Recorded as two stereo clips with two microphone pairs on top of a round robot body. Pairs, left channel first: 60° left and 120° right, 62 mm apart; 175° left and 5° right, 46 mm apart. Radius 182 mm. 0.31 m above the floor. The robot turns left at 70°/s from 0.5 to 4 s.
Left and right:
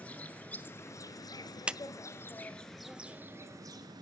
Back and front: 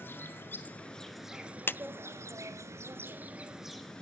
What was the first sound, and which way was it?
An insect, 130° left.